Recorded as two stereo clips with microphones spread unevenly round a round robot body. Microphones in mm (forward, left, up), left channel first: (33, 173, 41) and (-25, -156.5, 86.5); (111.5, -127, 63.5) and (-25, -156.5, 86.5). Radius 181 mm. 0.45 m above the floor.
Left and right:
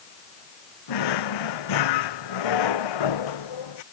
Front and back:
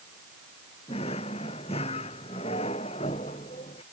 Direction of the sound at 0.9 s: 75° left.